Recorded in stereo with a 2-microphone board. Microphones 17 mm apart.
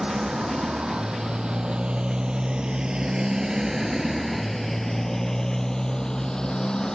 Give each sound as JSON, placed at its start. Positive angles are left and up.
{"t": 0.0, "sound": "a motorcycle", "side_deg": -85}